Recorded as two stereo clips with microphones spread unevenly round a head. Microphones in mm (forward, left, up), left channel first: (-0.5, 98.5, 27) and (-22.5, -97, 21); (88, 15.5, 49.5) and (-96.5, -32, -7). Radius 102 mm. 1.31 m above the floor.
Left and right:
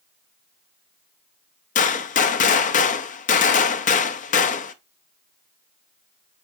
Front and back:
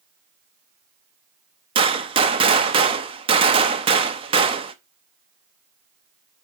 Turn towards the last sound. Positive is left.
turn(degrees=120)